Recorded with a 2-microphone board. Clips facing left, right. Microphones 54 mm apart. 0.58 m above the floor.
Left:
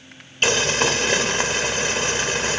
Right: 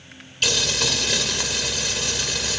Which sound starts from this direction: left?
Boiling, at 0.4 s.